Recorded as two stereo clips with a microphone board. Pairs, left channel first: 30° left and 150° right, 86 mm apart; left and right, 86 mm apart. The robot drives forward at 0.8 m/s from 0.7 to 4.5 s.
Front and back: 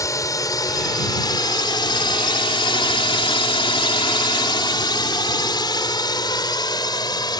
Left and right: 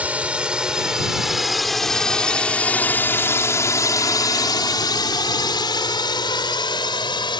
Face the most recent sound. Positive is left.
turn(degrees=65)